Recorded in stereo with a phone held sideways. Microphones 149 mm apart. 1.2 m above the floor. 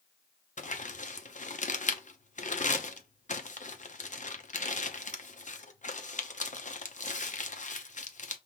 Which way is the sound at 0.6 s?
50° left (ahead or behind).